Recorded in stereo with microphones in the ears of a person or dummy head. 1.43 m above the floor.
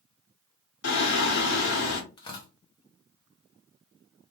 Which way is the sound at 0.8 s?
80° left.